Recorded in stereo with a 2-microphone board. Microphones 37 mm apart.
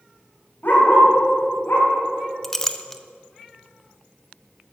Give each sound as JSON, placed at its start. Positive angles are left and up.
{"t": 0.6, "sound": "a dog barking", "side_deg": 65, "distance_m": 2.5}
{"t": 2.4, "sound": "a clink", "side_deg": 15, "distance_m": 0.6}